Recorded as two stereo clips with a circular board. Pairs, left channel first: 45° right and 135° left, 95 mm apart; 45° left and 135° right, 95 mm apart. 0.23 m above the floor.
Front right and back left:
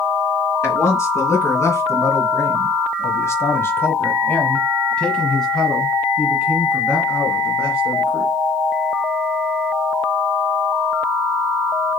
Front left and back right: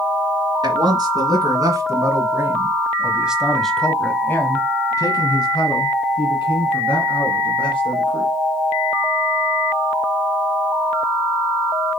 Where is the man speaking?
100° right, 2.5 m; by 8.3 s 55° left, 3 m.